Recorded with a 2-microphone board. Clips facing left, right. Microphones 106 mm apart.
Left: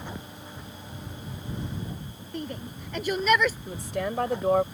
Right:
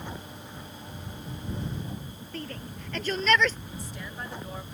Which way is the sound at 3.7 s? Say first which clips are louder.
Left 10 dB; 75° left (ahead or behind).